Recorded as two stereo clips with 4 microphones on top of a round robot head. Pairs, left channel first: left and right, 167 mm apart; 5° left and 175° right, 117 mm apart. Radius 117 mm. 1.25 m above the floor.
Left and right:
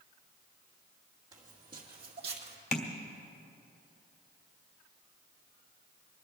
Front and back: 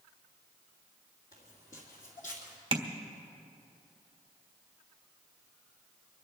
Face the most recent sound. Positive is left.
turn(degrees=140)